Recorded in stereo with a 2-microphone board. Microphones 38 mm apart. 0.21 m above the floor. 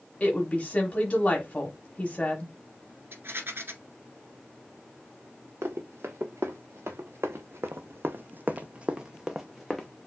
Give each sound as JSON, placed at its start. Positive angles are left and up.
{"t": 0.2, "sound": "a woman speaking", "side_deg": 30, "distance_m": 1.2}
{"t": 3.1, "sound": "a rattle", "side_deg": -65, "distance_m": 1.6}
{"t": 5.6, "sound": "running footsteps", "side_deg": -75, "distance_m": 1.6}